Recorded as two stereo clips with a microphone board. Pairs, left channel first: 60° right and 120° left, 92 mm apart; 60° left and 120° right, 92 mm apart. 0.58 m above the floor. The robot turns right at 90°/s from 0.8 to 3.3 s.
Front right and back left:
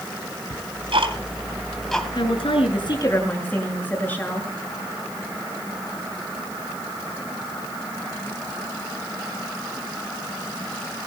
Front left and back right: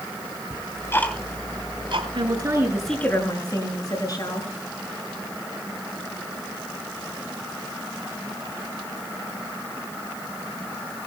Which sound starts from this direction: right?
A woman speaking, at 2.1 s.